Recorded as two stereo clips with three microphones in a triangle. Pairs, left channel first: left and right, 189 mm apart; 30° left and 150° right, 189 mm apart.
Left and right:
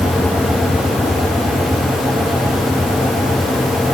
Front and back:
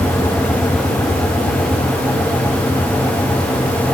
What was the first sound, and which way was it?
Only background noise.